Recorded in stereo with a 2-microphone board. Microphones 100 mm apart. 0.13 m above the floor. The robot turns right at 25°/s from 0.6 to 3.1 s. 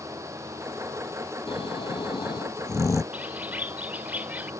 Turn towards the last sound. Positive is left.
turn(degrees=-15)  # may be behind; listen again after turning